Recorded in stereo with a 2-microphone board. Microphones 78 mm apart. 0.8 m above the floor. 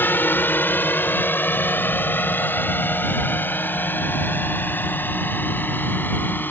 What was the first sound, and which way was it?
A drone, 25° left (ahead or behind).